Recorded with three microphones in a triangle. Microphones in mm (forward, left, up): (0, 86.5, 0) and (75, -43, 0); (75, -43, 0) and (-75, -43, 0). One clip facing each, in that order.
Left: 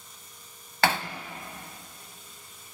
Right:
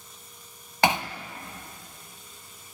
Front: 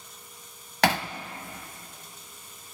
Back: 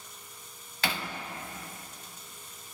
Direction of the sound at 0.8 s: 15° left.